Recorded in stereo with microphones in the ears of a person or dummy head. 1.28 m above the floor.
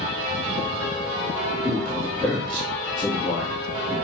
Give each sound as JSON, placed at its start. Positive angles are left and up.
{"t": 1.6, "sound": "a man speaking", "side_deg": 0, "distance_m": 2.5}